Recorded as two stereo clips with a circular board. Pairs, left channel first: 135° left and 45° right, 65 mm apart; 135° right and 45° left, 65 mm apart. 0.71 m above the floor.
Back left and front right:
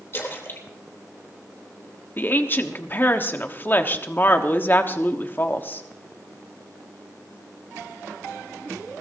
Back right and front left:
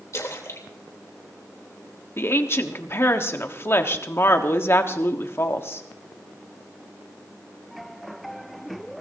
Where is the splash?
175° right, 3 m.